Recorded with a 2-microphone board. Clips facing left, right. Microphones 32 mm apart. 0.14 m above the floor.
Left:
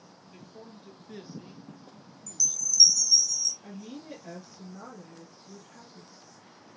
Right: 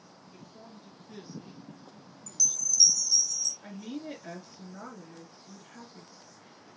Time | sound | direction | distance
0.3 | a man speaking | 15° left (ahead or behind) | 2.5 m
2.3 | a chime | 65° right (ahead or behind) | 1.0 m
3.6 | a woman speaking | 40° right (ahead or behind) | 2 m